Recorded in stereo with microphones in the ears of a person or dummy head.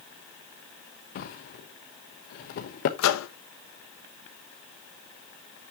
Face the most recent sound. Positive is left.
turn(degrees=75)  # may be behind; listen again after turning